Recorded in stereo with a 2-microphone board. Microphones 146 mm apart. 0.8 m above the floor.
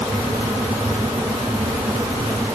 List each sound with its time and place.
Only background noise.